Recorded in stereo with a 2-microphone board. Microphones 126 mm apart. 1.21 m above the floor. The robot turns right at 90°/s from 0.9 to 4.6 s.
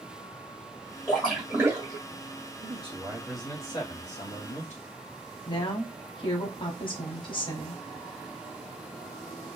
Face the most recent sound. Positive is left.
turn(degrees=40)  # may be behind; listen again after turning